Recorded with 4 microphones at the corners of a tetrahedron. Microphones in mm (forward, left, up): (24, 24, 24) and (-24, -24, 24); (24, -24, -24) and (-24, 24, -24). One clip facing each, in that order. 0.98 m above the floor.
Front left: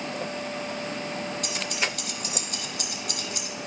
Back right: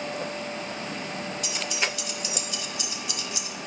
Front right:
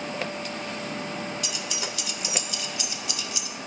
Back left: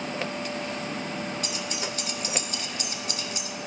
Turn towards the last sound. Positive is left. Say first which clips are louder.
# even, back left 1 dB
turn(degrees=85)